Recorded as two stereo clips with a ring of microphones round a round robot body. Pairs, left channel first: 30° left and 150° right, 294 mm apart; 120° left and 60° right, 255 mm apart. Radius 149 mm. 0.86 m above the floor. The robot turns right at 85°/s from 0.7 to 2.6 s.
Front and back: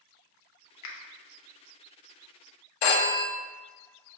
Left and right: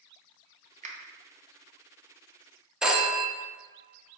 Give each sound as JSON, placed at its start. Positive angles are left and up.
{"t": 0.8, "sound": "a finger snap", "azimuth_deg": 0, "distance_m": 0.8}
{"t": 2.8, "sound": "a phone ringing", "azimuth_deg": 30, "distance_m": 0.6}